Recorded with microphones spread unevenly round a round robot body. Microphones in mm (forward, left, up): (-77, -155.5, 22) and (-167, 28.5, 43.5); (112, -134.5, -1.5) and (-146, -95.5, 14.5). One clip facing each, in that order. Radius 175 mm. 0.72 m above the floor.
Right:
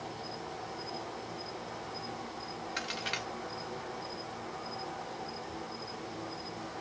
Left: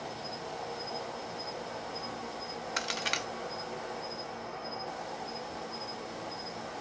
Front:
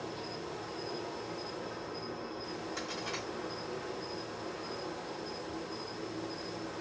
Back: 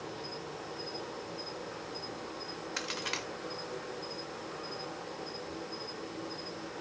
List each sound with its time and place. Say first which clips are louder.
0.0 s an insect: left 1 dB, front 1 dB; 40° left, 1.1 m
2.8 s a crack: left 2 dB, front 1 dB; 160° left, 0.7 m